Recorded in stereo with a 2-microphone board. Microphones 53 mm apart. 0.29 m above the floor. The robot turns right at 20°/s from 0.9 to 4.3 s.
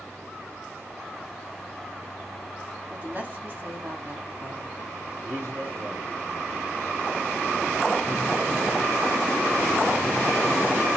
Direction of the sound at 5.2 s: 70° right (ahead or behind).